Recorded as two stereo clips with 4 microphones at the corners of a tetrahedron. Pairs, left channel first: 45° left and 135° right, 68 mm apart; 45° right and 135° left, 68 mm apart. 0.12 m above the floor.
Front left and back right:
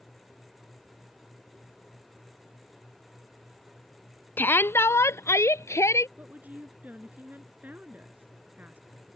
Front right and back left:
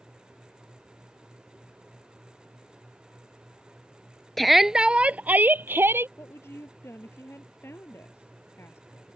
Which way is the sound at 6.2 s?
80° right.